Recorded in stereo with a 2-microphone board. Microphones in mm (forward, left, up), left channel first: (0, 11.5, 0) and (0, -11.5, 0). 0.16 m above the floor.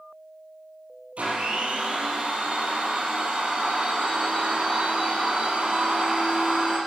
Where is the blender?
65° right (ahead or behind), 5.5 m.